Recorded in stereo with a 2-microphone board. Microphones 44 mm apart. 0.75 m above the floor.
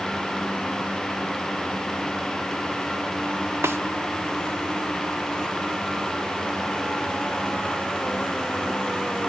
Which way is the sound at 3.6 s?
65° right (ahead or behind).